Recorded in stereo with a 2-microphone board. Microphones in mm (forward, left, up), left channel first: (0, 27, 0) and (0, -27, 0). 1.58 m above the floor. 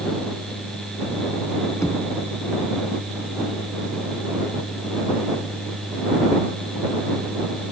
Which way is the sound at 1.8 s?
75° left (ahead or behind).